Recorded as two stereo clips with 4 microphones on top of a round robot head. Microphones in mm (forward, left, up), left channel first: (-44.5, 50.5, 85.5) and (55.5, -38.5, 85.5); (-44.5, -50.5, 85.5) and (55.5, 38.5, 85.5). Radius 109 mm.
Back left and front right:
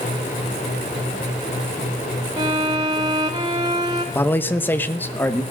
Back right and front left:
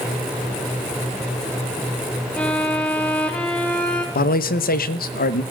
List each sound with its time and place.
2.4 s a violin: 75° right, 0.8 m
4.2 s a man speaking: 145° right, 0.8 m